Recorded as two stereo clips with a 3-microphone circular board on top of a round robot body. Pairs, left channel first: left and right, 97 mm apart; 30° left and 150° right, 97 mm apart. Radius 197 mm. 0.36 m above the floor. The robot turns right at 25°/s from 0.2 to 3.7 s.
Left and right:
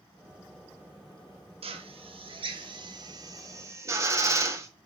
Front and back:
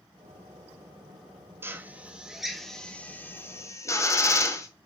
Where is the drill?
85° right, 0.7 m; by 4.7 s 30° right, 0.7 m.